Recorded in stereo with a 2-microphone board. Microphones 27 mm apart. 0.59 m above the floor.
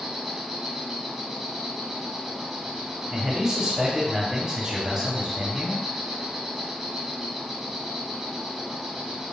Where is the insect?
15° right (ahead or behind), 0.9 m.